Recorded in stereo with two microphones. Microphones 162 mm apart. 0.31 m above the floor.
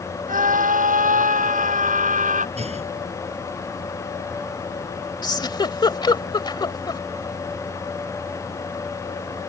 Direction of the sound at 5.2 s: 30° left (ahead or behind).